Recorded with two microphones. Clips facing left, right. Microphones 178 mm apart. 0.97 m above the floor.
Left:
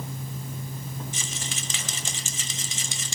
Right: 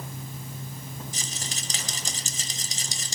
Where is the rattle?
40° right (ahead or behind), 1.9 m.